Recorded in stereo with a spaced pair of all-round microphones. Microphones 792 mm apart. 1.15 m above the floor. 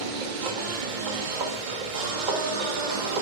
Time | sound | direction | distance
0.0 | a machine running | 70° right (ahead or behind) | 0.9 m